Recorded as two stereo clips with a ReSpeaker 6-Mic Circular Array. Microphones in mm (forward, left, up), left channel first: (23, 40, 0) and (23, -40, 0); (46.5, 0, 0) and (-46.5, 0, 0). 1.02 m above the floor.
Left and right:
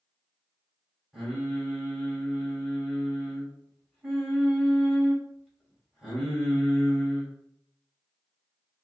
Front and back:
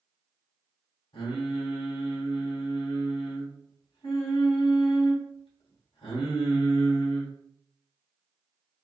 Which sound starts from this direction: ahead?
Singing, at 1.1 s.